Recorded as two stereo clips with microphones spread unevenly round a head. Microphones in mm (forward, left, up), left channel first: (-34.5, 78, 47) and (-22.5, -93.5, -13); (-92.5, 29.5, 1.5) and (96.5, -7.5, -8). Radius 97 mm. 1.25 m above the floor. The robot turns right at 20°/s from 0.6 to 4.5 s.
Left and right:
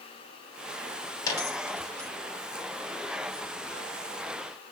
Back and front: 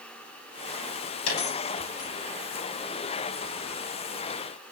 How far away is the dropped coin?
About 3.5 m.